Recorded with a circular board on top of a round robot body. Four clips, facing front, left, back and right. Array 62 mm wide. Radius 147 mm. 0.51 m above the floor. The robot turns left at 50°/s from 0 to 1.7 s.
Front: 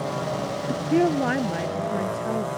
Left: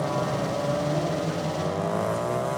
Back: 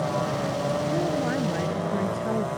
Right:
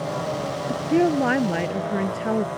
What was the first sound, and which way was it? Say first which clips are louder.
A woman speaking: right 6 dB, front 7 dB; 40° right.